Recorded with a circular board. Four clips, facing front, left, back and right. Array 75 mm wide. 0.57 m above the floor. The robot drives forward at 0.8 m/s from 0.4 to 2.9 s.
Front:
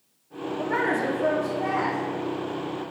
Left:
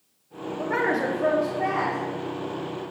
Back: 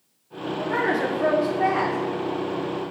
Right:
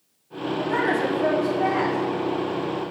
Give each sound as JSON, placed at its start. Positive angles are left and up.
{"t": 0.6, "sound": "a woman speaking", "azimuth_deg": 45, "distance_m": 0.6}